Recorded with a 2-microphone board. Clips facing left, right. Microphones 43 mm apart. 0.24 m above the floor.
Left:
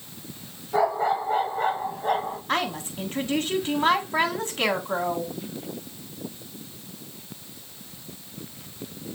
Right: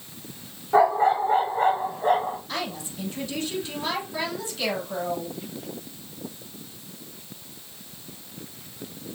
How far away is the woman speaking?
About 2 m.